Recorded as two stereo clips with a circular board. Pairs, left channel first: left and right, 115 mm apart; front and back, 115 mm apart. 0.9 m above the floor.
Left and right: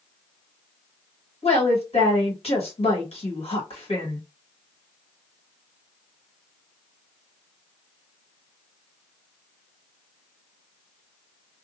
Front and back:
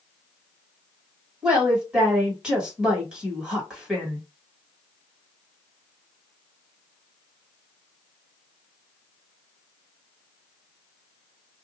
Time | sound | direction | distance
1.4 | a woman speaking | 100° left | 1.6 m